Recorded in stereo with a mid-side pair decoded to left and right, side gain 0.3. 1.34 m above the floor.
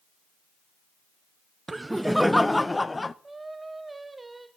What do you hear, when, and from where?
1.7 s laughter: 35° right, 0.5 m; by 3.1 s 30° left, 1.0 m
3.2 s singing: 30° right, 1.8 m